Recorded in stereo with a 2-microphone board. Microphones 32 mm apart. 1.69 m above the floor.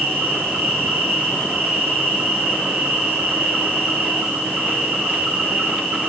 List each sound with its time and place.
0.0 s an insect: 70° right (ahead or behind), 6 m